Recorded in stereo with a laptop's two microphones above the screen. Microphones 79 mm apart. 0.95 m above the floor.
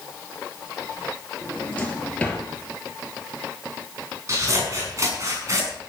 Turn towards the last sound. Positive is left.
turn(degrees=-40)  # may be behind; listen again after turning